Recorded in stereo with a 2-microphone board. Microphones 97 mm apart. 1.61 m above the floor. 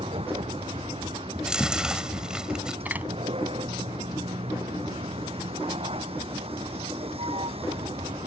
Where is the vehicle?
85° right.